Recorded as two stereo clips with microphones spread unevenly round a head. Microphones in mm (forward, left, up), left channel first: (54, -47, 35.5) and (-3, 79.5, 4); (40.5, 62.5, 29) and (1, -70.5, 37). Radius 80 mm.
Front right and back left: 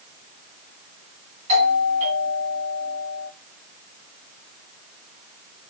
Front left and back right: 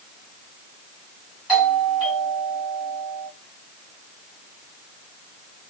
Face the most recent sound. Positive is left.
turn(degrees=170)